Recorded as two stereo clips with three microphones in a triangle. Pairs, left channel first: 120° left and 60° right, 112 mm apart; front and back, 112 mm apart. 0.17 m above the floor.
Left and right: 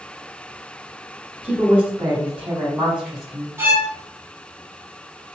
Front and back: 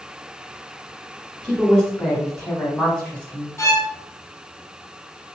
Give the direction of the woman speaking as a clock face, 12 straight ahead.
3 o'clock.